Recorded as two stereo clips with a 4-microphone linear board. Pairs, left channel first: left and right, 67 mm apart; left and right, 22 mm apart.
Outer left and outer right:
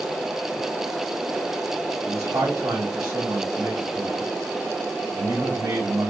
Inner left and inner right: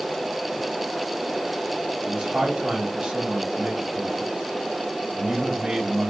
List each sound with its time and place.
2.0 s a man speaking: 75° right (ahead or behind), 3 m